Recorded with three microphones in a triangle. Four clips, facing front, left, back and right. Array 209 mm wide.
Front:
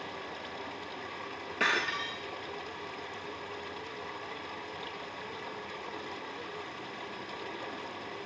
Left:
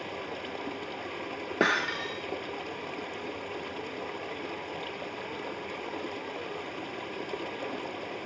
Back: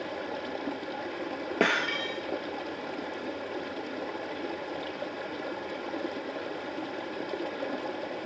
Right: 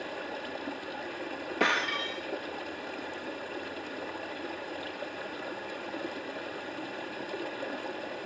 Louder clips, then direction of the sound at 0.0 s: Even, back 7 dB; 160° left.